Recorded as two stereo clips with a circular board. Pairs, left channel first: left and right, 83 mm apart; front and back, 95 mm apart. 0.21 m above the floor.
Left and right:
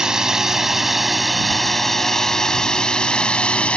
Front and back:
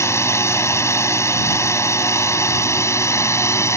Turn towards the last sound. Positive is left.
turn(degrees=25)